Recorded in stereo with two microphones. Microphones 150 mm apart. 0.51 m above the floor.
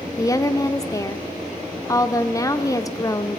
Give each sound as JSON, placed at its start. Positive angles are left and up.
{"t": 0.2, "sound": "a woman speaking", "side_deg": 25, "distance_m": 0.9}